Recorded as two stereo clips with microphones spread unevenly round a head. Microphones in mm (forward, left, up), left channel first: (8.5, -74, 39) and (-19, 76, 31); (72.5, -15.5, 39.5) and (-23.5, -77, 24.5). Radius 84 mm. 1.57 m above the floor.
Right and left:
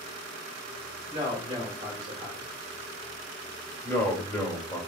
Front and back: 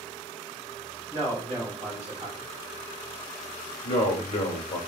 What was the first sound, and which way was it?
A man speaking, 150° left.